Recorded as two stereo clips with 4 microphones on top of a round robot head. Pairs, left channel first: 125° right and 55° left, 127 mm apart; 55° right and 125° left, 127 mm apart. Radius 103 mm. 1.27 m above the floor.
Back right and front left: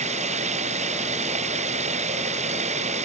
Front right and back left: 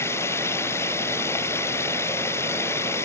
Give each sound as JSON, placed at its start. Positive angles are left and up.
{"t": 0.0, "sound": "running water", "azimuth_deg": 20}